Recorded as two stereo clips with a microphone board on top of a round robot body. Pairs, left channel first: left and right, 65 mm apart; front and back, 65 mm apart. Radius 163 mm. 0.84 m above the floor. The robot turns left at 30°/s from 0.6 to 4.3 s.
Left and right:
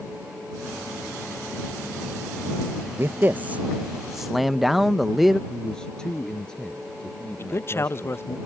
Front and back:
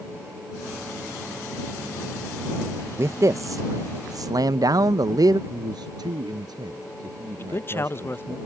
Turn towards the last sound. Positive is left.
turn(degrees=45)